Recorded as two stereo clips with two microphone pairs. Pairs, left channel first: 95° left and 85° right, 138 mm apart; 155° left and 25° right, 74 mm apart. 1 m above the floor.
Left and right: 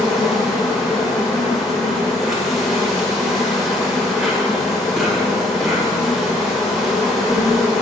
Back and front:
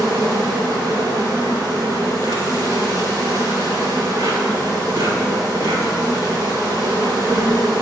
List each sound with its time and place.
0.0 s an insect: straight ahead, 1.7 m